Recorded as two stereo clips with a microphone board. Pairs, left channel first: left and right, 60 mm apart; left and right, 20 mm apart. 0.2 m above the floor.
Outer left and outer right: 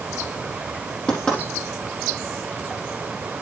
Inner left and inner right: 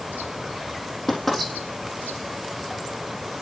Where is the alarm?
I don't hear an alarm.